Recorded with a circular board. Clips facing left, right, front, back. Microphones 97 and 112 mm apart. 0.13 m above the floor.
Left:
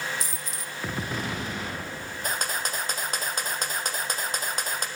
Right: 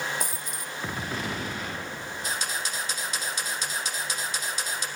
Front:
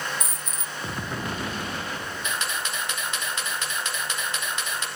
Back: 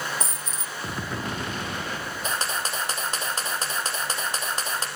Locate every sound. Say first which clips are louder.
0.2 s a dropped coin: right 2 dB, back 1 dB; 120° right, 2 m
2.2 s a camera shutter: left 3 dB, back 3 dB; 130° left, 3.5 m